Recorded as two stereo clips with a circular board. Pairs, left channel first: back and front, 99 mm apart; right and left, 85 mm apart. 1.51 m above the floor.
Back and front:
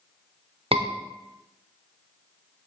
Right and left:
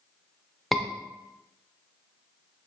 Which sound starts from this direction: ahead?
A scream, at 0.7 s.